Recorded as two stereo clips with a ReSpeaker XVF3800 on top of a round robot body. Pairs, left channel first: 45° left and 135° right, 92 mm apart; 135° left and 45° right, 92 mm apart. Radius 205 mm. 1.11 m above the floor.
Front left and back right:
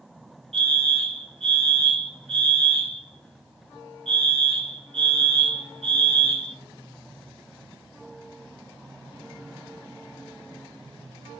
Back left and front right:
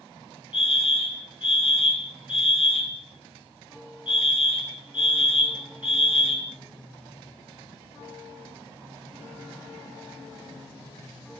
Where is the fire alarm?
120° right, 6 m.